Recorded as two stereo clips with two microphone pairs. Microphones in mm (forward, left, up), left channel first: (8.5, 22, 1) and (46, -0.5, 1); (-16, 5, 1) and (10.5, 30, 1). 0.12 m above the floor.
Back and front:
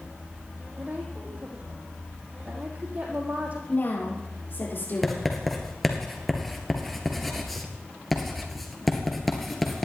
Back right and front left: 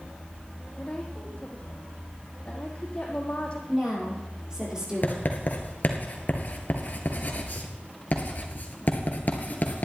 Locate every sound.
0.8 s a woman speaking: 80° right, 5 m
3.7 s a woman speaking: 115° left, 5.5 m
5.0 s writing: 120° right, 2.0 m